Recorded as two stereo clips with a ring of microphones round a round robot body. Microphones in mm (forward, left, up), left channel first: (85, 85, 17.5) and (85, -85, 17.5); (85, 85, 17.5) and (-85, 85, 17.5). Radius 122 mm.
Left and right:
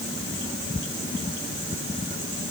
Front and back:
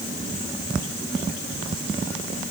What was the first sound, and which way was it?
Only background noise.